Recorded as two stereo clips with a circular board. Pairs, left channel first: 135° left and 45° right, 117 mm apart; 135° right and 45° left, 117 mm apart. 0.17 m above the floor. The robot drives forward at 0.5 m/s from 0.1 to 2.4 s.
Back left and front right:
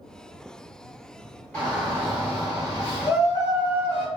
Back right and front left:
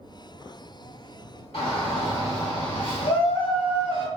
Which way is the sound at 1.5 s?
150° right.